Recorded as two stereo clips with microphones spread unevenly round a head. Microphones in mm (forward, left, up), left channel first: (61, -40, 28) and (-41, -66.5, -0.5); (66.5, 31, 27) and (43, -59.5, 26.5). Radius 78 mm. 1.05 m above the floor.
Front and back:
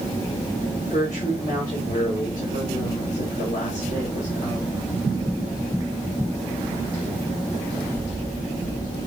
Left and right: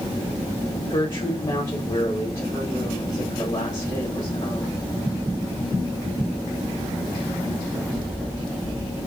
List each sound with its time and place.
0.9 s a woman speaking: 40° left, 1.9 m